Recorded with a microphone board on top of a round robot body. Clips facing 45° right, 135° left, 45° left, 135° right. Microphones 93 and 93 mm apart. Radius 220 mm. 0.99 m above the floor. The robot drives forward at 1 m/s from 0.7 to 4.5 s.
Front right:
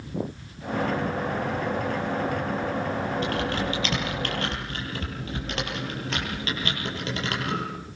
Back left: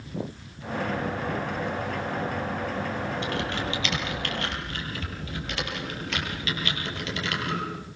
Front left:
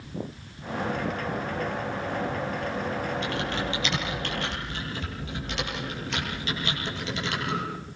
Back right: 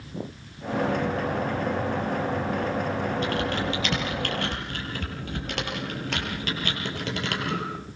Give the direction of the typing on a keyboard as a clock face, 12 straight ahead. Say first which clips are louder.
Front right 3 dB, back right 3 dB; 3 o'clock.